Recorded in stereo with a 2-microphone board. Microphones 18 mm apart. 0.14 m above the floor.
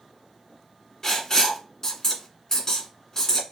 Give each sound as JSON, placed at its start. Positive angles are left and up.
{"t": 1.0, "sound": "writing", "side_deg": 30, "distance_m": 1.7}